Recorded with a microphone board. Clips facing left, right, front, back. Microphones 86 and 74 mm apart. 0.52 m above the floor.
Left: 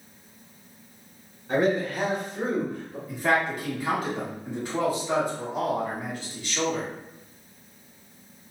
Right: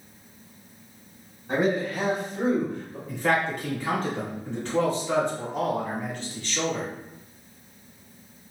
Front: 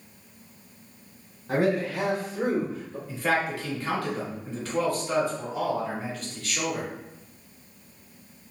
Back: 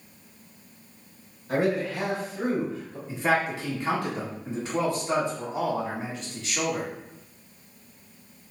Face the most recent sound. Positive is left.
turn(degrees=155)